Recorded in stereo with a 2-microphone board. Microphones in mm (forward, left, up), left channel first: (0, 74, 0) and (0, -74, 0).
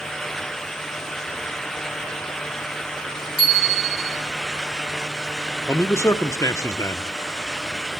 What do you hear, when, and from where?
3.4 s a bicycle bell: 35° right (ahead or behind), 2.5 m
5.7 s a man speaking: 20° left (ahead or behind), 0.8 m